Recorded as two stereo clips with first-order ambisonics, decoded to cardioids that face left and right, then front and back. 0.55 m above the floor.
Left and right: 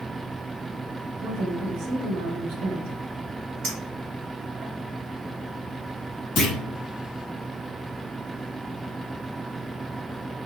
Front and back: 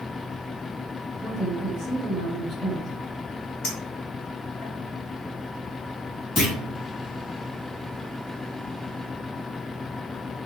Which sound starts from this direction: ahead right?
A clink, at 3.6 s.